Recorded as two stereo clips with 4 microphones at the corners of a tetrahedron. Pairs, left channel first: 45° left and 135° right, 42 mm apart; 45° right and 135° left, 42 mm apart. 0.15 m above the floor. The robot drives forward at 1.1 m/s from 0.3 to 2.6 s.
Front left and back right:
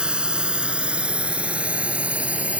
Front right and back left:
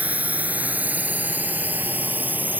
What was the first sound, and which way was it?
A drone, 165° left.